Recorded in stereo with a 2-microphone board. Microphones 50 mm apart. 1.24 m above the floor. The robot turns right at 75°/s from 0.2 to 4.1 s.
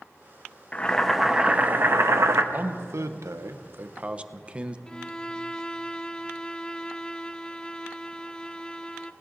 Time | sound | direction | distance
0.7 | boiling | 150° left | 0.9 m
2.5 | a man speaking | 145° right | 0.7 m
4.9 | a violin | 15° left (ahead or behind) | 0.5 m